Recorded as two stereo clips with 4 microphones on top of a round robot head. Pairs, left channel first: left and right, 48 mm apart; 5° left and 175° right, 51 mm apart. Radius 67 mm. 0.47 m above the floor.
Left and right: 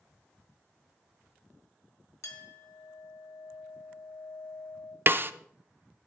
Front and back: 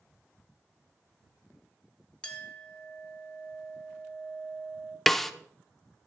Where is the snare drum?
80° right, 0.6 m.